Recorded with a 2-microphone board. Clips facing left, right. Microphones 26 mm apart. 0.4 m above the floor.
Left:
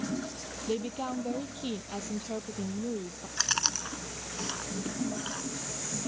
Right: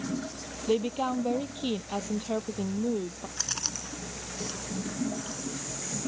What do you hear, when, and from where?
0.7 s a woman speaking: 25° right (ahead or behind)
3.4 s chewing: 30° left (ahead or behind)